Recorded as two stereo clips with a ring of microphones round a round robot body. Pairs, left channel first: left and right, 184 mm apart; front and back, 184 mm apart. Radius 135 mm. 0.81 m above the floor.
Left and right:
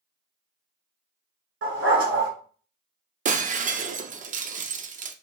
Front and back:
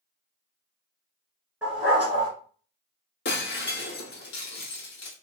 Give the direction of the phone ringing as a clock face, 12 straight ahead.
No phone ringing in this recording.